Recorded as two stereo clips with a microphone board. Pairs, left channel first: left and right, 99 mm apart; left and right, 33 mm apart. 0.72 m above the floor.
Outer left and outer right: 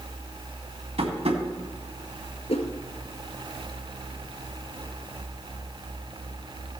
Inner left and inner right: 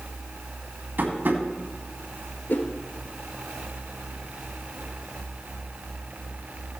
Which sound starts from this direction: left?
A whoosh, at 2.5 s.